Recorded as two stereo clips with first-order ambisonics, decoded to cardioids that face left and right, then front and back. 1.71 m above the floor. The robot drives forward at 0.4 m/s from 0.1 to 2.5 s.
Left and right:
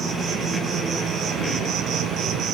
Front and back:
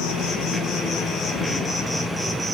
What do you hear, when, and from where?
0.0 s an insect: 30° right, 1.1 m; by 2.5 s 105° right, 0.8 m